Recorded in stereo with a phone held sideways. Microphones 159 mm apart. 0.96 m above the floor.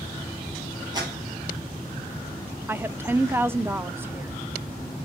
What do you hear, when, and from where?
0.9 s a clap: 25° right (ahead or behind), 7.5 m
2.7 s a woman speaking: 15° right (ahead or behind), 0.5 m